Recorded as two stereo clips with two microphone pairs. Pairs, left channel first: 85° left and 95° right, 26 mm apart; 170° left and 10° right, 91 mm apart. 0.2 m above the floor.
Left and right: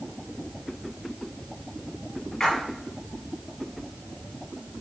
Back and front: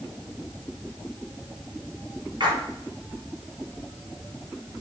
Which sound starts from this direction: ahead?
A splash, at 2.4 s.